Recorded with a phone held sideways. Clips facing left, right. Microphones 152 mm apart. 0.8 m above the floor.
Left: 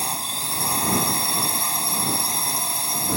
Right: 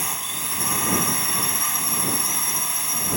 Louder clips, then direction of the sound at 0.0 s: Left 3 dB; 30° left (ahead or behind).